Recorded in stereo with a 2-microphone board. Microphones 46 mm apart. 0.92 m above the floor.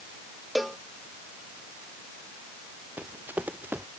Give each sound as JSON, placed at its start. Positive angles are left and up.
{"t": 0.6, "sound": "a cowbell", "side_deg": -5}
{"t": 3.0, "sound": "running footsteps", "side_deg": -45}